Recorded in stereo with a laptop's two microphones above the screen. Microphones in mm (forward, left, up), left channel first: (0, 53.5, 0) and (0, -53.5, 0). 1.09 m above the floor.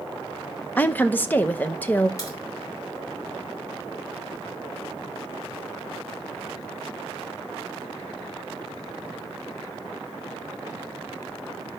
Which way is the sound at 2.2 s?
30° left (ahead or behind).